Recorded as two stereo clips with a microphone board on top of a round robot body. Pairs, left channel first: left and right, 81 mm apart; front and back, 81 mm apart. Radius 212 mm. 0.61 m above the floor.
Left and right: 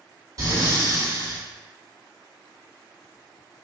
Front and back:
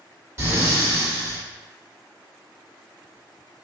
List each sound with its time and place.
0.4 s breathing: 130° right, 1.7 m